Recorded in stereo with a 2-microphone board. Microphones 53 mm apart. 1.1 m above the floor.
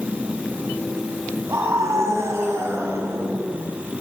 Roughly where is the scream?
Right.